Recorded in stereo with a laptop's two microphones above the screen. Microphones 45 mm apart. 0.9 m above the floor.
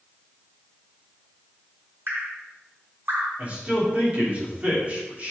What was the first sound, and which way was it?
Dripping, 60° right (ahead or behind).